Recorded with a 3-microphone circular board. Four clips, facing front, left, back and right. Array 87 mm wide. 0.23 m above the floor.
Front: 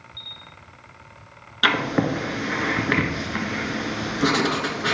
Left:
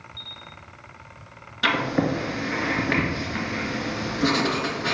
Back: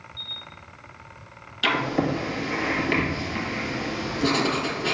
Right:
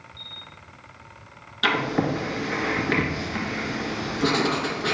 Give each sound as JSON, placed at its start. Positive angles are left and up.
{"t": 0.2, "sound": "a camera shutter", "azimuth_deg": 75, "distance_m": 2.0}
{"t": 1.6, "sound": "writing", "azimuth_deg": 5, "distance_m": 1.2}